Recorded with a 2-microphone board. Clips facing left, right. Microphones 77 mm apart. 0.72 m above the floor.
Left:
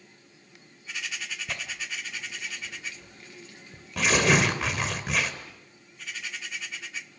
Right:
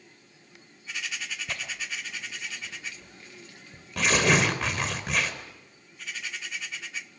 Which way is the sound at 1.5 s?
Centre (ahead or behind).